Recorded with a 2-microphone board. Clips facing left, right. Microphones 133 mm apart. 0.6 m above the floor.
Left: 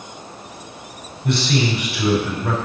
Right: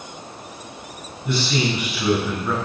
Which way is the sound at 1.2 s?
70° left (ahead or behind).